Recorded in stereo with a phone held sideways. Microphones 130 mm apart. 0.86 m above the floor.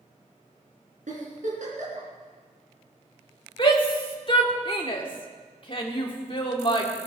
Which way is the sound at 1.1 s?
70° right (ahead or behind).